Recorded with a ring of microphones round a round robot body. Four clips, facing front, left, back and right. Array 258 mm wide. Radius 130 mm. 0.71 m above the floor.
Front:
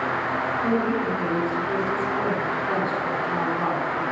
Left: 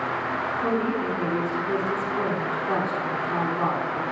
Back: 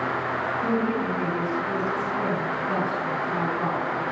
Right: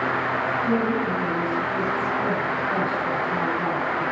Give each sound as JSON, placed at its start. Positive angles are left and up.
{"t": 0.6, "sound": "a woman speaking", "azimuth_deg": 100, "distance_m": 8.5}